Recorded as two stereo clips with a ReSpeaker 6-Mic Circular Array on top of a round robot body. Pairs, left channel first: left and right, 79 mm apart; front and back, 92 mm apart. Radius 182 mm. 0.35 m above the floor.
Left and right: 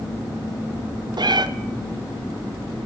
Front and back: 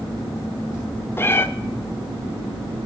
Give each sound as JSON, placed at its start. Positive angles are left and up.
{"t": 1.2, "sound": "a cat meowing", "azimuth_deg": -65, "distance_m": 0.6}